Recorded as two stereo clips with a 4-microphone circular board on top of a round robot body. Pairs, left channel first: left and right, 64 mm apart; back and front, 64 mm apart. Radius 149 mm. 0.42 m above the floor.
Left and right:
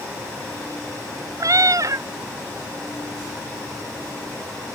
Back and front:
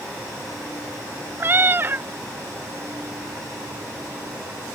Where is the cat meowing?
55° right.